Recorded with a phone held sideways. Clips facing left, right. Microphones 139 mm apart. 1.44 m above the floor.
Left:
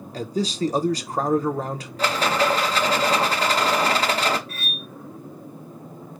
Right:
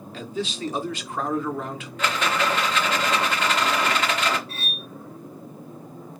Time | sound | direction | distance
0.1 | a man speaking | 40° left (ahead or behind) | 0.8 m
2.0 | a rattle | 35° left (ahead or behind) | 0.9 m
4.5 | cutlery clinking | 30° right (ahead or behind) | 0.7 m